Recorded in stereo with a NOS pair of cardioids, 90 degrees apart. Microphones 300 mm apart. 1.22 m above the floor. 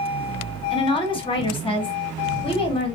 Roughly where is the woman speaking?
Ahead.